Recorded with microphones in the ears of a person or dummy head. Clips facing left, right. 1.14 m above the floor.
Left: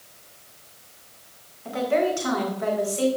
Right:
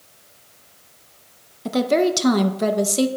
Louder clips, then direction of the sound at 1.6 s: Right 4 dB; 60° right (ahead or behind).